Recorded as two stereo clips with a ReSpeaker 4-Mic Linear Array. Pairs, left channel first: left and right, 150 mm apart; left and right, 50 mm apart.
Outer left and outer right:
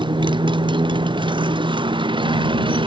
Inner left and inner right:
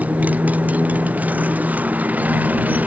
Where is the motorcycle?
30° right (ahead or behind); by 2.9 s 35° right (ahead or behind).